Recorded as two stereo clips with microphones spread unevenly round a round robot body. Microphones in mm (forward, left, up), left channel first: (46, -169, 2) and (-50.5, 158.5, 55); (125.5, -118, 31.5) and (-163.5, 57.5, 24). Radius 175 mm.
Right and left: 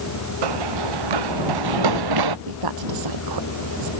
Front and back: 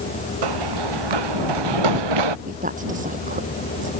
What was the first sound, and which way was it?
Running footsteps, 125° left.